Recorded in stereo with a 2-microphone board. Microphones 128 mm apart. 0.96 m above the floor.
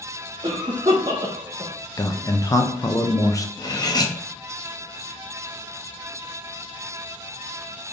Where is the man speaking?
25° left (ahead or behind), 0.5 m.